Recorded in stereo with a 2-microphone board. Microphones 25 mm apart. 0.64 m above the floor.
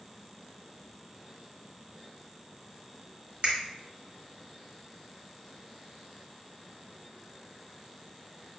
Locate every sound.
3.4 s a finger snap: 45° right (ahead or behind), 1.3 m